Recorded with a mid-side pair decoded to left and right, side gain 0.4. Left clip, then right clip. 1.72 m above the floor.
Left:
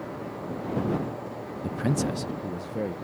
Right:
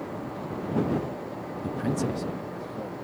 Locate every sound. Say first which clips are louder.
1.6 s a man speaking: left 1 dB; 15° left; by 3.0 s 70° left